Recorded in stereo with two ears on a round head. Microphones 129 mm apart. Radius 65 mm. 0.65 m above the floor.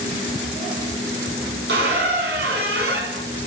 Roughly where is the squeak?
Right.